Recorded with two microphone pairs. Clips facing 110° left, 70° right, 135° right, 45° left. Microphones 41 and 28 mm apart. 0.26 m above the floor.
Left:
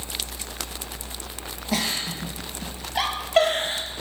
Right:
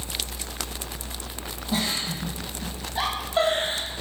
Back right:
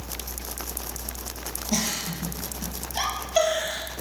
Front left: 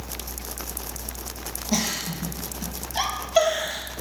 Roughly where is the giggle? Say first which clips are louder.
Left 1 dB, front left 2 dB; behind left.